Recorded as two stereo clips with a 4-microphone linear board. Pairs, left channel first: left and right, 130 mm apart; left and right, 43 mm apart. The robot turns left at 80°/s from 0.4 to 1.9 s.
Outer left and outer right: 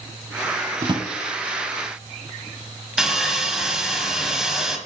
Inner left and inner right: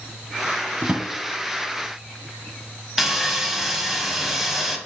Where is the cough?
I don't hear a cough.